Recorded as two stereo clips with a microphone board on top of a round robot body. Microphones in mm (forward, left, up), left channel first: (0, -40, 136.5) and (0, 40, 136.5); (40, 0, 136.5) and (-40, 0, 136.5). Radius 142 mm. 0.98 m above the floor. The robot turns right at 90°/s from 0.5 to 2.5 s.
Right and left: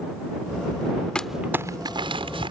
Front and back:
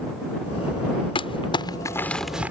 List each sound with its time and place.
1.1 s crumpling: 10° right; by 2.5 s 110° left